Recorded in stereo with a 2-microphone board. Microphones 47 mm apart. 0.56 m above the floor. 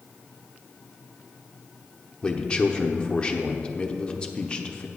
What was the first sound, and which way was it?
A man speaking, 20° left (ahead or behind).